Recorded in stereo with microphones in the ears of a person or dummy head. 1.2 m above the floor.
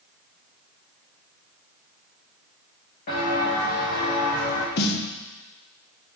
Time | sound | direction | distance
3.1 | footsteps | 40° left (ahead or behind) | 4 m
4.8 | a snare drum | 55° left (ahead or behind) | 1.2 m